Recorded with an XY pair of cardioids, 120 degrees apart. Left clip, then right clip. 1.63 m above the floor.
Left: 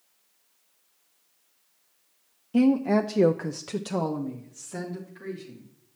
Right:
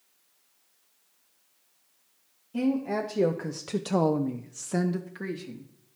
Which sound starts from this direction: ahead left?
A woman speaking, at 2.5 s.